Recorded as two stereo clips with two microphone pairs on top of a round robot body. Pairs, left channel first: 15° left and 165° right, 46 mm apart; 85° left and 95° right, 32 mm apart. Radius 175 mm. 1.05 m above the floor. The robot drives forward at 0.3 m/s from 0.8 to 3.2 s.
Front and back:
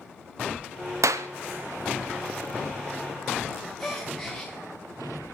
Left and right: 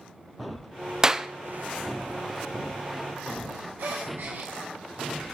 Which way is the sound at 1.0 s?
160° right.